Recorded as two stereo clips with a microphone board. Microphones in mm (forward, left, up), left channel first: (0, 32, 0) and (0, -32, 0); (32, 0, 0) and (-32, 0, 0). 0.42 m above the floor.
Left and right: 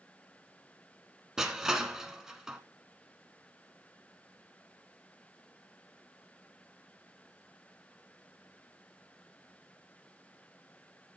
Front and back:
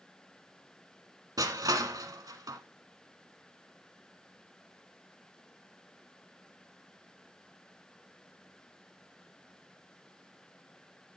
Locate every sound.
1.4 s crushing: 170° right, 1.2 m